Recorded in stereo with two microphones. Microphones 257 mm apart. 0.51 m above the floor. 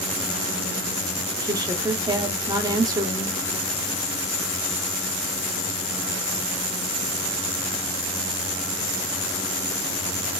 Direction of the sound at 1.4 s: 15° right (ahead or behind).